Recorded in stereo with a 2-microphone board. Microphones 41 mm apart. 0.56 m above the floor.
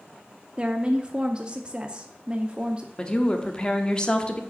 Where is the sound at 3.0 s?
25° left (ahead or behind), 1.0 m.